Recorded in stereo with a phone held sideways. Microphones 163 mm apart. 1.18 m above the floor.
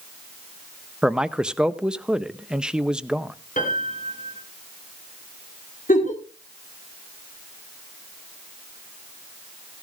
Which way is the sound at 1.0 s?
5° right (ahead or behind).